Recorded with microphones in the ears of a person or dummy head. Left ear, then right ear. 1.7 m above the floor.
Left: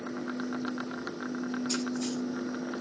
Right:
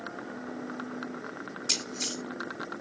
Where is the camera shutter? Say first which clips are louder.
Right 7 dB; 75° right (ahead or behind), 5.5 m.